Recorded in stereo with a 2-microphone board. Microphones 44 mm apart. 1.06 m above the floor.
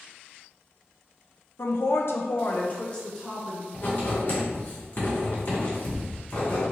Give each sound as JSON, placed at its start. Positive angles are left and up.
{"t": 1.6, "sound": "a woman speaking", "side_deg": 65, "distance_m": 0.6}
{"t": 3.7, "sound": "writing", "side_deg": 45, "distance_m": 1.8}